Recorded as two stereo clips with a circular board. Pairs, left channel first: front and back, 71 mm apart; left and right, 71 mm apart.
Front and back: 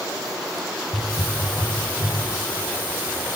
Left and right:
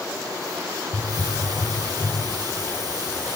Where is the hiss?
115° right, 4 m.